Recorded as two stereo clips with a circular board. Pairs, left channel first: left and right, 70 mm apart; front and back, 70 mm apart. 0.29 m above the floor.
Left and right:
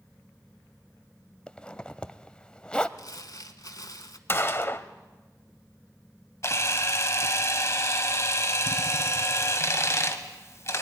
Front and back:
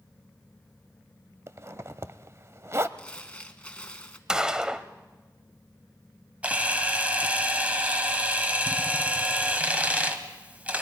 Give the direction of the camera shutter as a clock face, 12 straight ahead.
8 o'clock.